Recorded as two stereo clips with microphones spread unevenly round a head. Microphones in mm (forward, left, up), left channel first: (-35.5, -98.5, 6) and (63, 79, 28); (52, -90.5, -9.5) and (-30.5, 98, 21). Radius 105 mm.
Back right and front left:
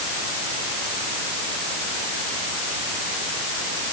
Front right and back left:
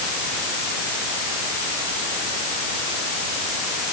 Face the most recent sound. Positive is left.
No sound to turn to.